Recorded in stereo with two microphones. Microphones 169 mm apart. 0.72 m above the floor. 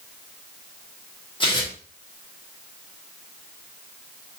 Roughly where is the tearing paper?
Left.